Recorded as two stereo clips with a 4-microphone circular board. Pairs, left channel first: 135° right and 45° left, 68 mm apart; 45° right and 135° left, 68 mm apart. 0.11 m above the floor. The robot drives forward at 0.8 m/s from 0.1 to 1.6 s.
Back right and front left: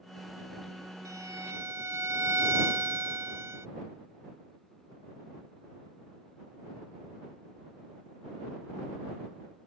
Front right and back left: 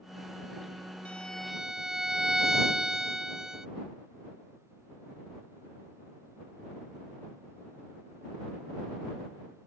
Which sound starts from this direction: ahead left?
A violin, at 1.1 s.